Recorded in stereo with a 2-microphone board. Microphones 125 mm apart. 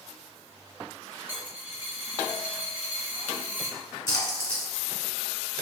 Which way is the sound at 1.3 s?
15° right (ahead or behind).